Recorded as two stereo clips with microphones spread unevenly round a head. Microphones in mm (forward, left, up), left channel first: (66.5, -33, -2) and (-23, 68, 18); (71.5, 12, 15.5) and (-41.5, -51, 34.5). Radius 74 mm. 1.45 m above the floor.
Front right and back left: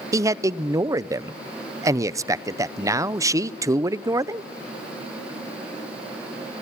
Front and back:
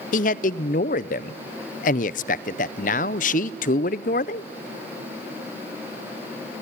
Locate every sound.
0.1 s a man speaking: 65° left, 0.6 m